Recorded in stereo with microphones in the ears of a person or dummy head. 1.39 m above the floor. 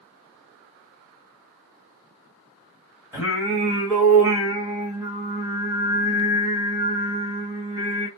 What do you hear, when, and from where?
3.1 s singing: 10° right (ahead or behind), 1.4 m